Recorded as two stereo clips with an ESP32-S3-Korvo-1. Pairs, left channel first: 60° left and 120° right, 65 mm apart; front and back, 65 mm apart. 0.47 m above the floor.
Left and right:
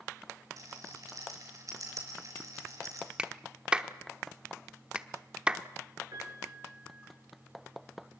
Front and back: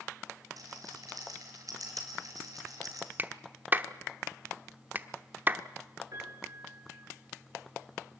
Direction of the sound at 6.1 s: 150° right.